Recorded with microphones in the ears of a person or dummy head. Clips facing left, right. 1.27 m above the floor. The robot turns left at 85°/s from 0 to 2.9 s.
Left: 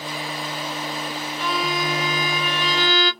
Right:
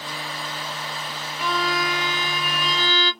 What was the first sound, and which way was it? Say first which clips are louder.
A violin: right 1 dB; 170° right.